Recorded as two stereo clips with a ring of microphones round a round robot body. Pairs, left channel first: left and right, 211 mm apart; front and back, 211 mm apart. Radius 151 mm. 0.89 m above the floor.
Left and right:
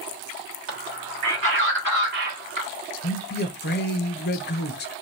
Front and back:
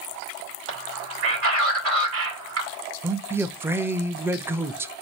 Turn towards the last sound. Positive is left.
turn(degrees=105)